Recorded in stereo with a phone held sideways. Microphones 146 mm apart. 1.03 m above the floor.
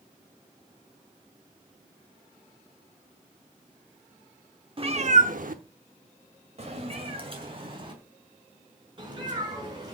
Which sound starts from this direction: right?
A cat meowing, at 4.8 s.